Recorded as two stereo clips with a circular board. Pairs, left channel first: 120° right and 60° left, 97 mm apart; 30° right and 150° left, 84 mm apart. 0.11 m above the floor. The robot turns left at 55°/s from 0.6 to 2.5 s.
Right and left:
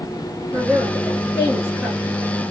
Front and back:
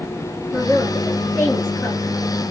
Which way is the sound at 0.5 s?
65° left.